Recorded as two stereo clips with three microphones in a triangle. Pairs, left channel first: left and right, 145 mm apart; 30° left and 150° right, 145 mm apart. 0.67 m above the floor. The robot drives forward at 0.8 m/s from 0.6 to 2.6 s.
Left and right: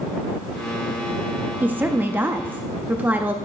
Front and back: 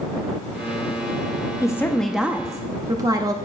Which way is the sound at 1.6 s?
20° right.